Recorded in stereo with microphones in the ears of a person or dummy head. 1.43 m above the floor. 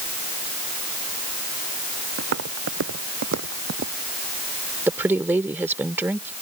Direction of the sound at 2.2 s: 70° right (ahead or behind).